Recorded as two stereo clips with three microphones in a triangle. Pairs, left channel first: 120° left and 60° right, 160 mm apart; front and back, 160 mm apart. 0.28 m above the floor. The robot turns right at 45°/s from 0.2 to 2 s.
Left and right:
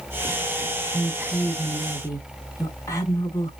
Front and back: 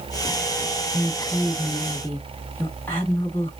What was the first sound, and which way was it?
A woman speaking, 15° left.